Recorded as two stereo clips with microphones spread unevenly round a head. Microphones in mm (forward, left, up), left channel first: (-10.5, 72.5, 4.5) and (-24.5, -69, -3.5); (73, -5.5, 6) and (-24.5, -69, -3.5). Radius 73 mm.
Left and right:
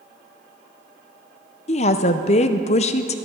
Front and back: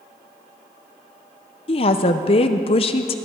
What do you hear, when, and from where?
1.7 s a woman speaking: 55° left, 0.7 m